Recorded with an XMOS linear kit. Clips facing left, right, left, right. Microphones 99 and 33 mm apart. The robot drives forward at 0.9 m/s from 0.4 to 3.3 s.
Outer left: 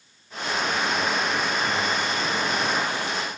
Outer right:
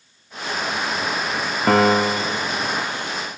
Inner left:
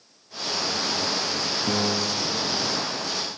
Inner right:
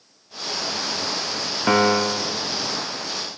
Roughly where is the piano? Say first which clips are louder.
Outer right 10 dB, inner right 10 dB; right.